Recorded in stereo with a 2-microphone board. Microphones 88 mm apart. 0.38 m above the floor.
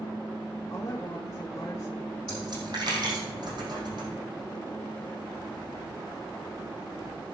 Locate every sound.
0.7 s a woman speaking: 35° left (ahead or behind), 1.4 m
2.3 s a dropped coin: 55° right (ahead or behind), 4 m